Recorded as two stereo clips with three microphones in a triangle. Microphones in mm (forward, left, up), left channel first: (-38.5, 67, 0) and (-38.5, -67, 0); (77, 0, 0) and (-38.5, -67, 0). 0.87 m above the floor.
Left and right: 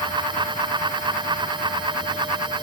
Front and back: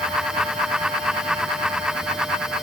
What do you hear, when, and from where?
Only background noise.